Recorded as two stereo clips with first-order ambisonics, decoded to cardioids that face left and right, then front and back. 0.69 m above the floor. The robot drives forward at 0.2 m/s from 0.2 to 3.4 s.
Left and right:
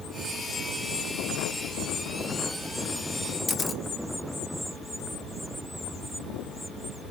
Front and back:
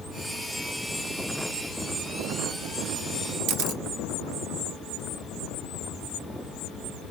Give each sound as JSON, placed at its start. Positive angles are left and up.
{"t": 3.5, "sound": "a camera shutter", "azimuth_deg": 160, "distance_m": 0.5}